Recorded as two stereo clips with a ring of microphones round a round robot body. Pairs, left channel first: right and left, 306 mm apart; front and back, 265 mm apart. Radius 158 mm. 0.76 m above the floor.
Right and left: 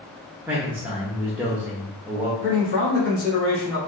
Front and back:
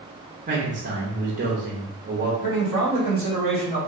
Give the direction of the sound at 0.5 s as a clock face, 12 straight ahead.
6 o'clock.